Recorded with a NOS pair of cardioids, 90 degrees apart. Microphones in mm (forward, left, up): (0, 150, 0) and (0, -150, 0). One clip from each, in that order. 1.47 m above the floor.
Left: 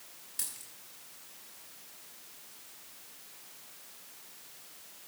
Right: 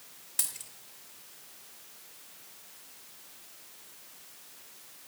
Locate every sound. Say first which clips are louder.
0.4 s a dropped coin: right 6 dB; 55° right, 2.5 m